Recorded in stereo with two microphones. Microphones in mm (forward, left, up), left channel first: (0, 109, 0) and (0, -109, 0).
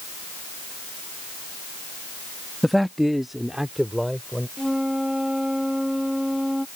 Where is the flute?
Centre (ahead or behind).